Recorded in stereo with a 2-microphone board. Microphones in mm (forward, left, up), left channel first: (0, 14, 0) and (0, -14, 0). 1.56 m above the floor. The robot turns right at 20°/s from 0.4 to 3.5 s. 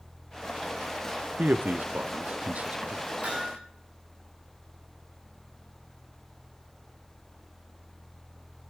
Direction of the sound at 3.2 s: 55° right (ahead or behind).